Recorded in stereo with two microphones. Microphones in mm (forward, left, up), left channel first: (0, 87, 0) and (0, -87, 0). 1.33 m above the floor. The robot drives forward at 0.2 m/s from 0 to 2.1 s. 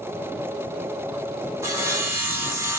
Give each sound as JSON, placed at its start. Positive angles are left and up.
{"t": 1.6, "sound": "sawing", "side_deg": -15, "distance_m": 0.7}